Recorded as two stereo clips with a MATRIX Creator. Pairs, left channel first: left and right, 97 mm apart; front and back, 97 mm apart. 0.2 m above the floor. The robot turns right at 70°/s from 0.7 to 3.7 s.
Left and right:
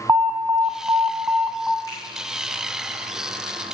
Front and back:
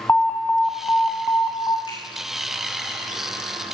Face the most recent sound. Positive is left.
turn(degrees=165)